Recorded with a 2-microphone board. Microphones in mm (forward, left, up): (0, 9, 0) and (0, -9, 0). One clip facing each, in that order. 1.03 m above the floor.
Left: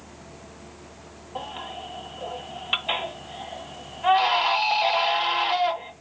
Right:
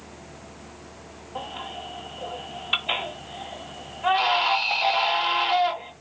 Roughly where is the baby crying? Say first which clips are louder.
Even; centre.